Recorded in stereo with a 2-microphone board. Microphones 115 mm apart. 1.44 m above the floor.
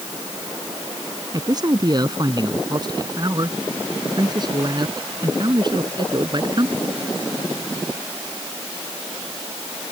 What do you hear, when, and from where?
1.3 s a man speaking: 35° right (ahead or behind); by 6.8 s 40° right (ahead or behind)